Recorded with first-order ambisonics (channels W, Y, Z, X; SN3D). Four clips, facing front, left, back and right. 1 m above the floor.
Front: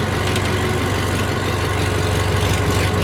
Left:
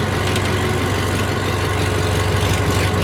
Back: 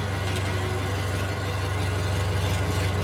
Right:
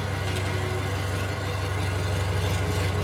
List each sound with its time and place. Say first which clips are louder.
0.0 s an engine running: left 10 dB, front 9 dB; 50° left, 1.0 m